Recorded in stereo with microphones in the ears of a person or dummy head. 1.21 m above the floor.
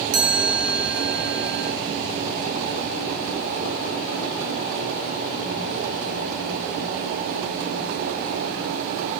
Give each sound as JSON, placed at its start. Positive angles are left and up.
{"t": 0.1, "sound": "a chime", "side_deg": -80, "distance_m": 2.0}